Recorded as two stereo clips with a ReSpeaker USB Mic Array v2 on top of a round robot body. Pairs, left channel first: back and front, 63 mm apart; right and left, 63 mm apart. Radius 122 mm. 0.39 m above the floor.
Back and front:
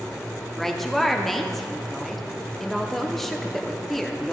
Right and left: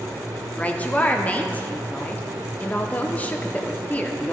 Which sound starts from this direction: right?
A woman speaking, at 0.6 s.